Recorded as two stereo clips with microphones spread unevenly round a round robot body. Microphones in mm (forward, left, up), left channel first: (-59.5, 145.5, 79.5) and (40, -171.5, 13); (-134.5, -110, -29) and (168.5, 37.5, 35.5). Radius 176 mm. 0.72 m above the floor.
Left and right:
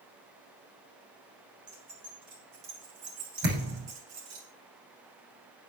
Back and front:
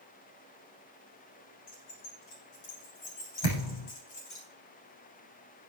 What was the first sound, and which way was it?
Keys jangling, 145° right.